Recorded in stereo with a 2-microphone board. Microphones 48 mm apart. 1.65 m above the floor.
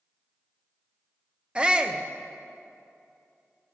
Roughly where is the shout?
Centre.